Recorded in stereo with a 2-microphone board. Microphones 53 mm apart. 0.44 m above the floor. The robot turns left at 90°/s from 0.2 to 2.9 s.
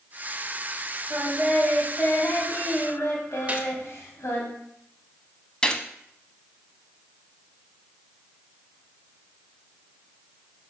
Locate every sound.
1.1 s singing: 130° right, 2 m; by 4.5 s 70° left, 2 m
3.5 s a gunshot: 30° right (ahead or behind), 1.0 m
5.6 s a gunshot: 20° left (ahead or behind), 0.9 m